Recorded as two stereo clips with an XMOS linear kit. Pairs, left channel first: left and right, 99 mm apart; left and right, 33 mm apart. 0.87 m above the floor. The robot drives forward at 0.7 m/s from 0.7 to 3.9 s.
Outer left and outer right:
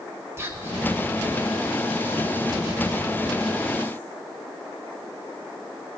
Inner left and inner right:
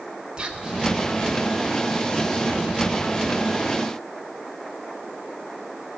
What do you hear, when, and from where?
0.4 s whispering: 30° right (ahead or behind), 2.5 m